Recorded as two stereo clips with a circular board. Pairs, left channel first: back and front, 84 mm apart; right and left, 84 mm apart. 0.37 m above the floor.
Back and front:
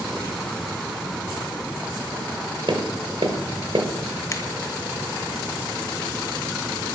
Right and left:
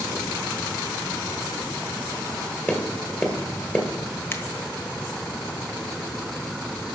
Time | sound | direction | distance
2.7 | tapping | 25° right | 1.7 m
4.3 | a finger snap | 140° right | 1.2 m